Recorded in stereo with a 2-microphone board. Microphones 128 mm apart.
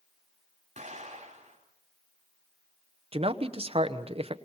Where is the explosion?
55° right (ahead or behind), 4.5 m.